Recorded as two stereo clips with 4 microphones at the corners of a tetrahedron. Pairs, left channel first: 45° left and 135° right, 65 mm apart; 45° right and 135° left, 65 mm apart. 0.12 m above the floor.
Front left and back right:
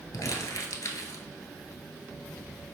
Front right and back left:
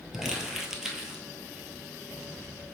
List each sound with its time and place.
0.1 s crumpling: 55° left, 0.7 m